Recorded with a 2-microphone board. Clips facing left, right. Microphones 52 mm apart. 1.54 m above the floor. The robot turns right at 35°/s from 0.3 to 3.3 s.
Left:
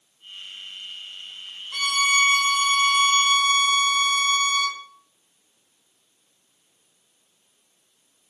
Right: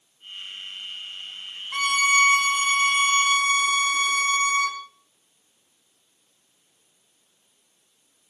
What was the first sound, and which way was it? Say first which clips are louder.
A violin: right 1 dB; 135° right.